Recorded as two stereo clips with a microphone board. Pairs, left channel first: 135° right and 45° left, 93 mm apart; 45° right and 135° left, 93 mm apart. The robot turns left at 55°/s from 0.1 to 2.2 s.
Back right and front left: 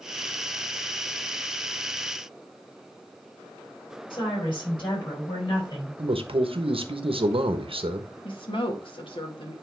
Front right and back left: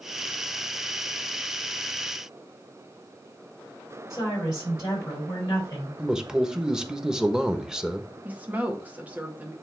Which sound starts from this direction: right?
A woman speaking, at 4.1 s.